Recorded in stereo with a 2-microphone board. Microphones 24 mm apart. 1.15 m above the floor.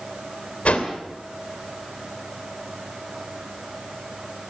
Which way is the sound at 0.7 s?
55° left (ahead or behind).